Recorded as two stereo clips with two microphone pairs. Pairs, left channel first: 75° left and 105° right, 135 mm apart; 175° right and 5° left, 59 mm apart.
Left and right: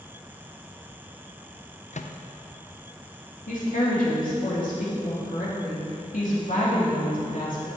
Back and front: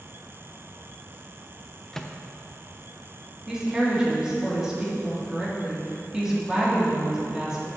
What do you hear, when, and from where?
1.9 s a microwave: 105° left, 0.5 m
3.5 s a woman speaking: 85° left, 2.5 m